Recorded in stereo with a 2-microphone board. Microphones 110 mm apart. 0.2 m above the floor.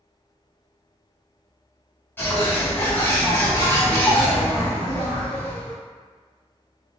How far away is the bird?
About 1.0 m.